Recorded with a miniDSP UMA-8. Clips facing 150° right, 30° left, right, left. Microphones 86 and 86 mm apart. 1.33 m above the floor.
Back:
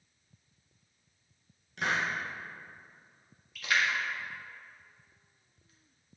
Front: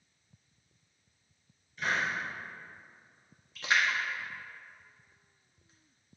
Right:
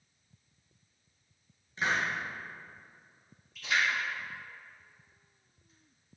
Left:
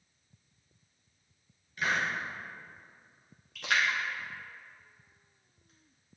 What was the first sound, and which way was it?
A hiss, 155° right.